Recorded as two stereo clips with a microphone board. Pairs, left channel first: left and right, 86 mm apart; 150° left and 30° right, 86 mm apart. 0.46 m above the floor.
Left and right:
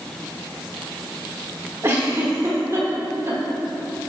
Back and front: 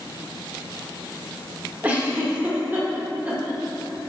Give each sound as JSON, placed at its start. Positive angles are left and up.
{"t": 1.8, "sound": "a giggle", "azimuth_deg": -80, "distance_m": 0.9}